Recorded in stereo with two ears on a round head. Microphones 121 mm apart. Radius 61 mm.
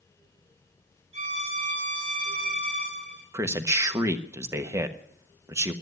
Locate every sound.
1.1 s a violin: 45° right (ahead or behind), 6.5 m
3.3 s a man speaking: 20° right (ahead or behind), 1.2 m